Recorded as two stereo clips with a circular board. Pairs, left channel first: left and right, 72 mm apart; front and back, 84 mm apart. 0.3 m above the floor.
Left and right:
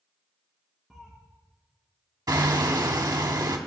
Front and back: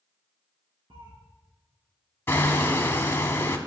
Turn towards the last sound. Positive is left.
turn(degrees=-60)